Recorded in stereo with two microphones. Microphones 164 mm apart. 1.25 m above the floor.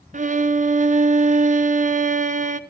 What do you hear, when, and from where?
0.1 s a violin: 50° right (ahead or behind), 0.7 m